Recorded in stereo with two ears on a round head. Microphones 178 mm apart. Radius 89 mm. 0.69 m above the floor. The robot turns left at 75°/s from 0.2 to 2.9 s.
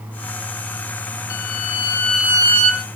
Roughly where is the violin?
Ahead left.